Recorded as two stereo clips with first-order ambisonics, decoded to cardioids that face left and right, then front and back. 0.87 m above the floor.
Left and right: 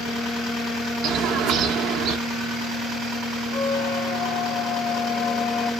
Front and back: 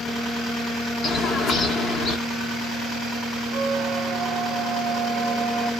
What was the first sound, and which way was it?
A bird, 60° right.